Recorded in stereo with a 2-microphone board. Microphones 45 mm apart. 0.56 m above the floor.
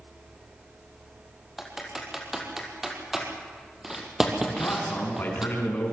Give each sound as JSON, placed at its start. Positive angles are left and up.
{"t": 1.6, "sound": "typing on a keyboard", "side_deg": -10, "distance_m": 3.5}
{"t": 4.5, "sound": "a man speaking", "side_deg": 45, "distance_m": 5.5}